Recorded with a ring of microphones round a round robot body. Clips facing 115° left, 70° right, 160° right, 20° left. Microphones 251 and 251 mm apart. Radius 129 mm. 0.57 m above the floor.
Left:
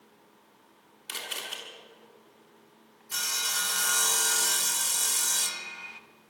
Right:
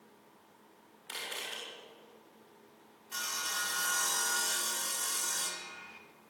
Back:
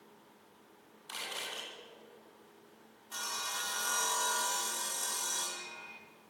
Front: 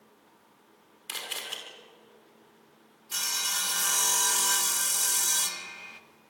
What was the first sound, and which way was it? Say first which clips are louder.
A camera shutter: left 2 dB, front 2 dB; 70° left.